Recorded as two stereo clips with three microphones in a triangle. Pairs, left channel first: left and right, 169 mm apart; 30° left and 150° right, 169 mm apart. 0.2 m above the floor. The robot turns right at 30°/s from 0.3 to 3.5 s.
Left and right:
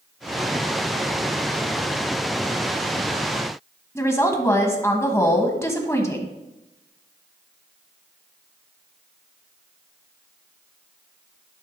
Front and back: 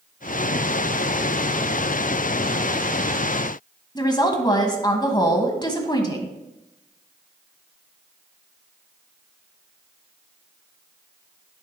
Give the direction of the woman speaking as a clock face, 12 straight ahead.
11 o'clock.